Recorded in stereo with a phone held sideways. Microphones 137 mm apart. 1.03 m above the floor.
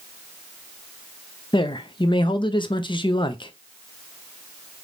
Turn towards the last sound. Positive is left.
turn(degrees=40)  # may be behind; listen again after turning